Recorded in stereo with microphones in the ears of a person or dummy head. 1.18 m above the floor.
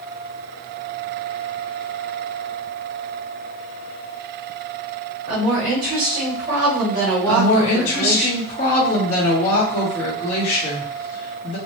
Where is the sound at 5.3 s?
30° right (ahead or behind), 3 m; by 8.3 s 60° right (ahead or behind), 3.5 m.